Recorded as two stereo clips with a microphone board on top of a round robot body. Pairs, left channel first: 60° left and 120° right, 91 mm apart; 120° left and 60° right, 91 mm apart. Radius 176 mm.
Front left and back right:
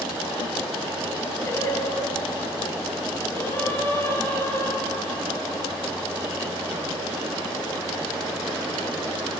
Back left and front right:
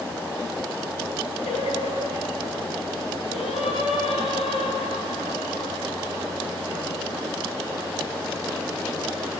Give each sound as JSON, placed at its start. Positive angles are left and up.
{"t": 1.4, "sound": "singing", "azimuth_deg": 125, "distance_m": 8.5}